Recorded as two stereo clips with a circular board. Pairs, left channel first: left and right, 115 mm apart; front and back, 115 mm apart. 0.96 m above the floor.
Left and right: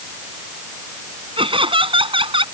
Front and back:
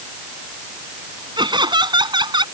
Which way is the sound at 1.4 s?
130° right.